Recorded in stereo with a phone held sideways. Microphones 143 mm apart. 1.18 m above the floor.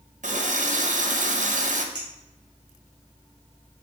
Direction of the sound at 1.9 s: 30° right (ahead or behind).